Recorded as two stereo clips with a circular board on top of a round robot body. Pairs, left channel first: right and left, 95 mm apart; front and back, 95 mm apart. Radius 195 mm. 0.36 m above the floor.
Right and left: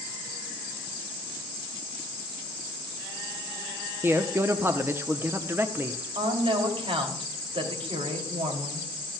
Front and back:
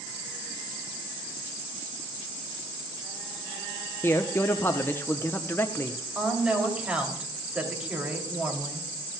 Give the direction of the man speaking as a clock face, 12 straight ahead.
10 o'clock.